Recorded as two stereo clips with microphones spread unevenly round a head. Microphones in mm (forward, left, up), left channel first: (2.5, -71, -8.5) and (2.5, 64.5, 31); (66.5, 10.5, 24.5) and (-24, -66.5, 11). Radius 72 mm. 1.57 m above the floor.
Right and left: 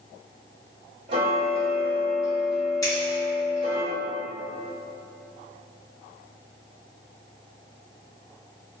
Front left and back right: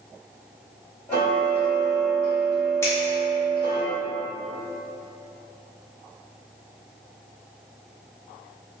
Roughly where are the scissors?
Ahead.